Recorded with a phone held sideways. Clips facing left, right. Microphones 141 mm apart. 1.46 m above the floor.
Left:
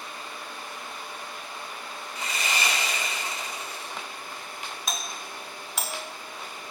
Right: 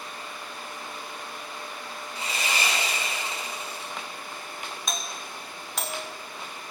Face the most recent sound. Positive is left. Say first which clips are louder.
# even
turn(degrees=5)  # may be behind; listen again after turning